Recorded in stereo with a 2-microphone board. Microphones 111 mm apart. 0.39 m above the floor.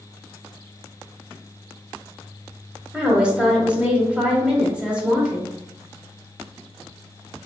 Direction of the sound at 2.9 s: 10° right (ahead or behind).